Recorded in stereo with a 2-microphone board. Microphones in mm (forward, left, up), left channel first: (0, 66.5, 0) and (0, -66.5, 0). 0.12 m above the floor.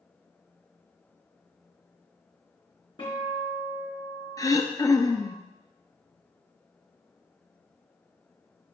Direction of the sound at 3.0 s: 40° left (ahead or behind).